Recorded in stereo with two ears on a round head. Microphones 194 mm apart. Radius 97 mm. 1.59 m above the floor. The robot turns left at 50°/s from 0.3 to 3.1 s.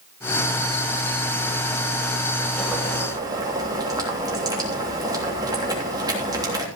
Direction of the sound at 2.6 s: 10° left (ahead or behind).